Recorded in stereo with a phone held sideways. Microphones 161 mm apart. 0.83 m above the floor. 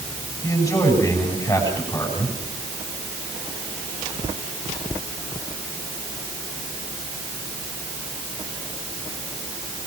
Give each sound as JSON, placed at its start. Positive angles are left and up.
{"t": 0.4, "sound": "a man speaking", "side_deg": 25, "distance_m": 7.5}